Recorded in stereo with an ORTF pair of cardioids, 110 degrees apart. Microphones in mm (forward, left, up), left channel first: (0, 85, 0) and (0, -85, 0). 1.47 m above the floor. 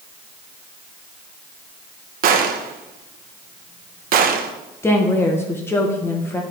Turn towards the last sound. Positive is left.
turn(degrees=15)